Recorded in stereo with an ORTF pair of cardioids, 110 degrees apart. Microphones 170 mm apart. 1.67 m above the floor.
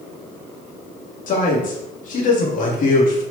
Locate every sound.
1.3 s a man speaking: 50° left, 4 m